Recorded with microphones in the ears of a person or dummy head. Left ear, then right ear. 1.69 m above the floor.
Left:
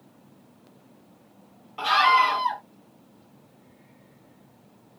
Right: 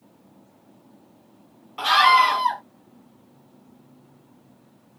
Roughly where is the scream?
Centre.